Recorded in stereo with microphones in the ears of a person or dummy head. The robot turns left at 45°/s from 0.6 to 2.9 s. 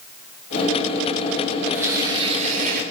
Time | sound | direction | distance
1.7 | tearing paper | 5° right | 3 m